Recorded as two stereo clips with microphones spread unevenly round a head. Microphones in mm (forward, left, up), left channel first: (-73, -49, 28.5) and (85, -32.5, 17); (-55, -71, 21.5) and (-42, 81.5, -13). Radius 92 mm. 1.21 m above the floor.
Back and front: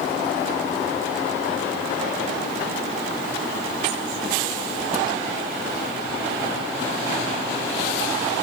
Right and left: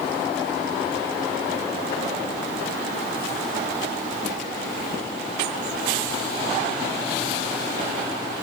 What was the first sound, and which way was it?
Only background noise.